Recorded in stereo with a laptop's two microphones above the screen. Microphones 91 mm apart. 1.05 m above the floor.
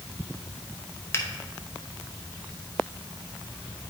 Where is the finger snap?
30° left (ahead or behind), 0.9 m.